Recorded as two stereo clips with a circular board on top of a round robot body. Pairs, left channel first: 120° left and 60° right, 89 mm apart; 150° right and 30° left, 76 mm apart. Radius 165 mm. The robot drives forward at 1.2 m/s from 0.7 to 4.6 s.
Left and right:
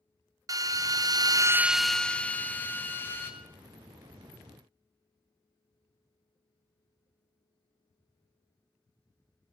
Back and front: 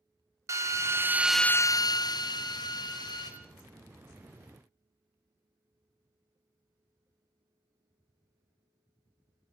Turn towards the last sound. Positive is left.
turn(degrees=-175)